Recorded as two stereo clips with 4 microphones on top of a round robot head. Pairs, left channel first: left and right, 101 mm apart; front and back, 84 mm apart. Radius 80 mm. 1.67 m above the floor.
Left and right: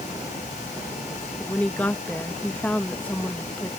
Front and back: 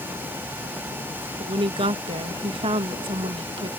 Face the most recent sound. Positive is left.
turn(degrees=170)